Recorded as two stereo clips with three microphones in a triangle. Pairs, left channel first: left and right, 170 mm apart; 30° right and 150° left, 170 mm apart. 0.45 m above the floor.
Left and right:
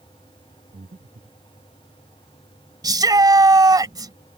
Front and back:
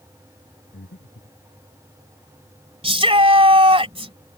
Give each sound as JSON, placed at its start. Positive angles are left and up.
{"t": 0.7, "sound": "breathing", "azimuth_deg": -40}
{"t": 2.8, "sound": "a shout", "azimuth_deg": -155}